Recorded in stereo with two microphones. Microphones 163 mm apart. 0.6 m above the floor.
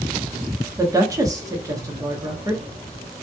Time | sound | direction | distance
0.8 | a woman speaking | 20° right (ahead or behind) | 0.8 m